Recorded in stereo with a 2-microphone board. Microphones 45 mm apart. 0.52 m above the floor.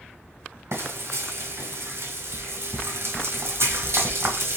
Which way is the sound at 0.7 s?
70° right (ahead or behind).